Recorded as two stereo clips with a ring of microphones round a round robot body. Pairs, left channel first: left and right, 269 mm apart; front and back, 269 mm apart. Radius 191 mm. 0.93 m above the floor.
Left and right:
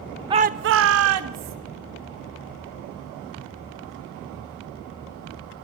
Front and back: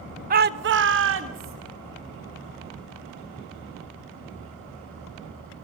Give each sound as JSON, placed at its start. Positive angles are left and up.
{"t": 0.3, "sound": "a shout", "azimuth_deg": -155, "distance_m": 0.5}